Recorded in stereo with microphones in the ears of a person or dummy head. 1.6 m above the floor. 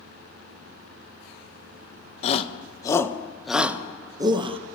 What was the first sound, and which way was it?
A shout, 35° left (ahead or behind).